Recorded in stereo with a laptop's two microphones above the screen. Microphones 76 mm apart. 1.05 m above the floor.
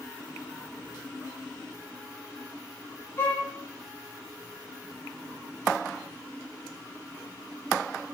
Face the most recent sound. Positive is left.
turn(degrees=30)  # may be behind; listen again after turning